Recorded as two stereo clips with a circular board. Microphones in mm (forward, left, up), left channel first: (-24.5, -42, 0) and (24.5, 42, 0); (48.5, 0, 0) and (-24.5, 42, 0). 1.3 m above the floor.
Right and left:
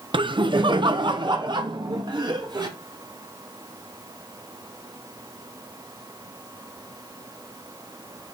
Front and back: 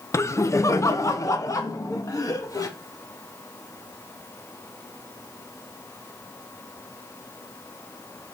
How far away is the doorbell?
I don't hear a doorbell.